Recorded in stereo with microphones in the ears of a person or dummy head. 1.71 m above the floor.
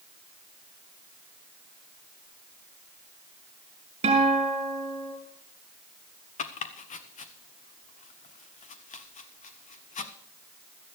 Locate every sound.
4.0 s a guitar: 30° right (ahead or behind), 4 m
6.4 s chopping: 40° left (ahead or behind), 1.1 m